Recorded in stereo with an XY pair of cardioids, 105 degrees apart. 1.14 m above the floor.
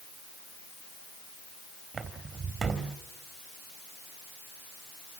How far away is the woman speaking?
I don't hear a woman speaking.